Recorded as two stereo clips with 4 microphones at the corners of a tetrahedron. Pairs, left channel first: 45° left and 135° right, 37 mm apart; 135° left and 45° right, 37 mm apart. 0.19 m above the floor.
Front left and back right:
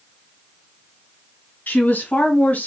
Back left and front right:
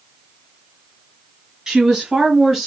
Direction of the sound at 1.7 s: 20° left.